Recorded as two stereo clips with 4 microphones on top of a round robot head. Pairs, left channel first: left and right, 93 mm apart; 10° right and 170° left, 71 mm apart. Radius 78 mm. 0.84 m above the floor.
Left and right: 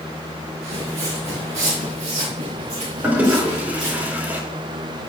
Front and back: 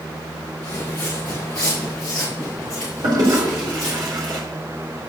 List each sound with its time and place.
0.6 s footsteps: 80° right, 4.5 m; by 4.0 s 95° right, 8 m
3.0 s a toilet flushing: 160° right, 3.5 m